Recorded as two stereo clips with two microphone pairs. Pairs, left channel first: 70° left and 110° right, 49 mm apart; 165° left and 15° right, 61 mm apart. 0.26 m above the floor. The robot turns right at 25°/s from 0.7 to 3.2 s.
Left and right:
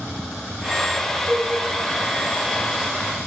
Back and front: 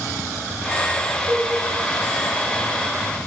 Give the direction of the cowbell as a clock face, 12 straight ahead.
11 o'clock.